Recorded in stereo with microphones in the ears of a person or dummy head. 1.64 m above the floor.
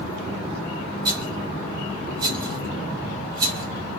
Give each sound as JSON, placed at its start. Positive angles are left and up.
{"t": 1.1, "sound": "a rattle", "side_deg": -25, "distance_m": 0.9}